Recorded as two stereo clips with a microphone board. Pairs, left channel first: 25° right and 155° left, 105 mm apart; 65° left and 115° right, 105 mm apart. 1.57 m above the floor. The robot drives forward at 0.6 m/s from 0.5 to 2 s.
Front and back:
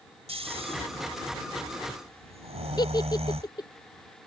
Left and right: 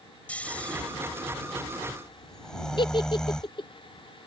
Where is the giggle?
30° left.